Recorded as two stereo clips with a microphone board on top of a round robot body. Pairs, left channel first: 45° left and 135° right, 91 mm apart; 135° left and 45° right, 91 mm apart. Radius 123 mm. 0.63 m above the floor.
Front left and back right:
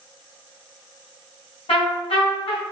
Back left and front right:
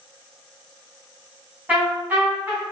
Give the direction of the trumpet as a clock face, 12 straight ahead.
11 o'clock.